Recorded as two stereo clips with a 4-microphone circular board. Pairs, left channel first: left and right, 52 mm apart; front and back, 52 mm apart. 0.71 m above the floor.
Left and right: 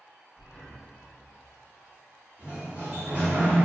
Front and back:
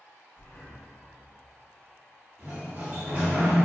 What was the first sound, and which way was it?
Breathing, 5° left.